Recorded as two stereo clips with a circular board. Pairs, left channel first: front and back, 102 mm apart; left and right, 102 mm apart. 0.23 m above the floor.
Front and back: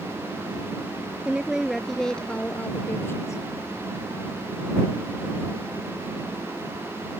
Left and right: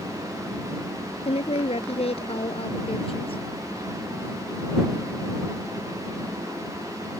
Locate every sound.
1.2 s a woman speaking: 100° left; by 3.4 s 60° left